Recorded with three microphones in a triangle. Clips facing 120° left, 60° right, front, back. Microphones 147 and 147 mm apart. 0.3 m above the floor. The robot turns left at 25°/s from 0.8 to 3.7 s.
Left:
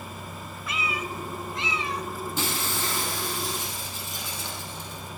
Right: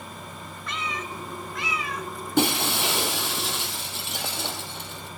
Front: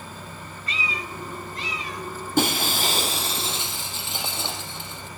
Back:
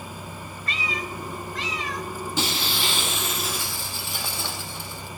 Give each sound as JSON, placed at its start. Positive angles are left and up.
{"t": 0.7, "sound": "a cat meowing", "azimuth_deg": -155, "distance_m": 0.8}
{"t": 2.4, "sound": "breaking glass", "azimuth_deg": -35, "distance_m": 2.0}